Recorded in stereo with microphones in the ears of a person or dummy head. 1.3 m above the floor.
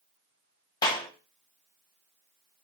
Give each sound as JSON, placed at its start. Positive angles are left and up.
{"t": 0.8, "sound": "a clap", "side_deg": 20, "distance_m": 1.6}